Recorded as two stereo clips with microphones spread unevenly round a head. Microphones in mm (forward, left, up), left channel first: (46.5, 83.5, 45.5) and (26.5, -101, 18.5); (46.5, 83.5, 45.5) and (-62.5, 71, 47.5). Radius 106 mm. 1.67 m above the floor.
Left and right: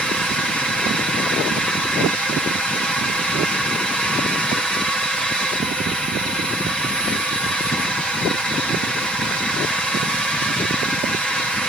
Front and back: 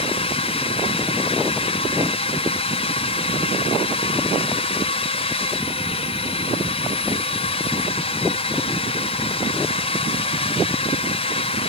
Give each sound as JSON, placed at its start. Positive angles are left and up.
{"t": 0.0, "sound": "a drone", "azimuth_deg": -5}